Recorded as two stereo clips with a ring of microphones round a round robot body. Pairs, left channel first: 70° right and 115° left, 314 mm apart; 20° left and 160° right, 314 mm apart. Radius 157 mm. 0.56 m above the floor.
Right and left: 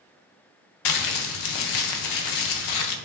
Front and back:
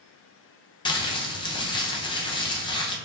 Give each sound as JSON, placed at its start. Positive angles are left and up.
{"t": 0.8, "sound": "crumpling", "azimuth_deg": -50, "distance_m": 0.6}